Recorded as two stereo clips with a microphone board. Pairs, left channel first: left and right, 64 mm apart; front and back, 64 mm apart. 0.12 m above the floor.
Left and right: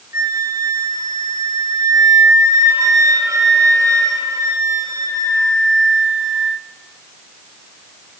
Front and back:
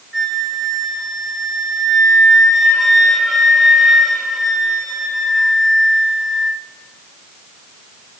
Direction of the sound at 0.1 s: 90° right.